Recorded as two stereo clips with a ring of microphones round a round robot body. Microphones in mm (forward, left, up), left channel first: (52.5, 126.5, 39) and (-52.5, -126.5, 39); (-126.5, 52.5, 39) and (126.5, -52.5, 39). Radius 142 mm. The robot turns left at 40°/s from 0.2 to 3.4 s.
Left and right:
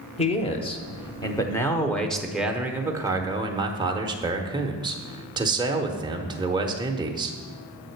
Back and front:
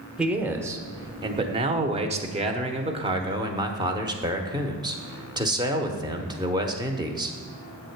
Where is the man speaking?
60° left, 0.9 m; by 7.4 s 70° right, 0.9 m.